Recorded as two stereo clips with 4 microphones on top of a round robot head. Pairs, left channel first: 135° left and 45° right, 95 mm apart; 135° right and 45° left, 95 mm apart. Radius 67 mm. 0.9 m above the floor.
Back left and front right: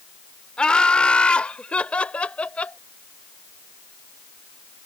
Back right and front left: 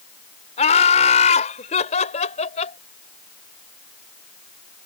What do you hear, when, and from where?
0.6 s laughter: 145° right; by 2.8 s 150° right